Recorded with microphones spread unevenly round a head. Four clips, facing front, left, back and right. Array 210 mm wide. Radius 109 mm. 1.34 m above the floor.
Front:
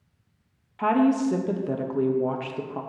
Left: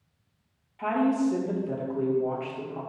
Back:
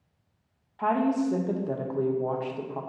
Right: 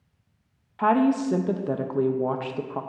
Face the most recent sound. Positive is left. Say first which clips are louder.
# right 4 dB, front 4 dB
turn(degrees=-50)